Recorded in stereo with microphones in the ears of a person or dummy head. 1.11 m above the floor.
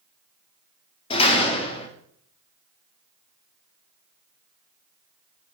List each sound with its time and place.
1.1 s a door slam: 30° left (ahead or behind), 1.2 m